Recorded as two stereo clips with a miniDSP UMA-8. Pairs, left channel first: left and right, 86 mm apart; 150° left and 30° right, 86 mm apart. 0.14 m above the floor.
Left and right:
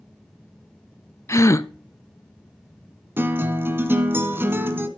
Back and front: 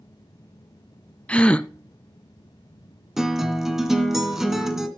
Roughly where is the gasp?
Left.